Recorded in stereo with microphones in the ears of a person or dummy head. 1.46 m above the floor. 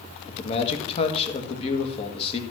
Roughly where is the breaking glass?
I don't hear breaking glass.